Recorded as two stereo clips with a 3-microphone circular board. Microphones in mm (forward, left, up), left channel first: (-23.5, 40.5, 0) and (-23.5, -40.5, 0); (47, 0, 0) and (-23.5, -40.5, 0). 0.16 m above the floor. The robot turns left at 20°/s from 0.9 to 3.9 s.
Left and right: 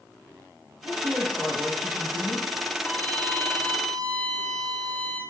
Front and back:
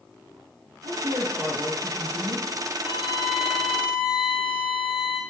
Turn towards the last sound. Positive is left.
turn(degrees=-5)